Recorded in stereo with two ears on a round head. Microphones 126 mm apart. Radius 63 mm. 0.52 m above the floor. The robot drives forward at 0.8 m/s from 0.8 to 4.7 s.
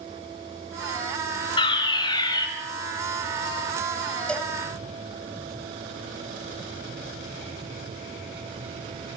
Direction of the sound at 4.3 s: 5° left (ahead or behind).